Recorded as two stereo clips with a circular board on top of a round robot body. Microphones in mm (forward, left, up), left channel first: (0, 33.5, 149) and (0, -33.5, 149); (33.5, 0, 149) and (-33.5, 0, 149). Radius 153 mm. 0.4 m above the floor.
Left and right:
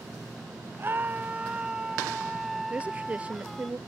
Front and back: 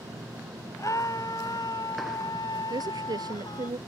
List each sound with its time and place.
0.8 s a scream: 35° right; by 3.7 s 5° left
2.7 s a woman speaking: 160° right